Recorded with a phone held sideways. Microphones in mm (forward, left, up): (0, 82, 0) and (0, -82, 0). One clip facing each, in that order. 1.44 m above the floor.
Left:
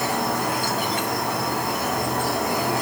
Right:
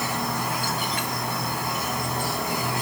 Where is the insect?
75° left (ahead or behind), 4 m.